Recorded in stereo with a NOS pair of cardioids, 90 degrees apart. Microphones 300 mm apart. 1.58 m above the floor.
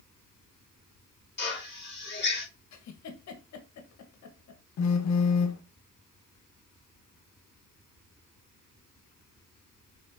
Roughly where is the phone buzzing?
Ahead left.